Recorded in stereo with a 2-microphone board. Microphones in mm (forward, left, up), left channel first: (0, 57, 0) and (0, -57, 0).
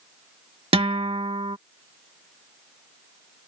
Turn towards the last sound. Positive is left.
turn(degrees=-55)  # may be behind; listen again after turning